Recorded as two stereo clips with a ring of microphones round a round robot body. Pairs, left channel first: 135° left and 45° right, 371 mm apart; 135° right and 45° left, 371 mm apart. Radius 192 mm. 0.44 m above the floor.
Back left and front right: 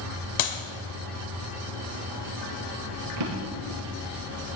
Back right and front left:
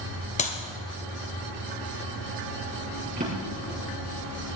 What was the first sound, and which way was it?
A clap, 155° left.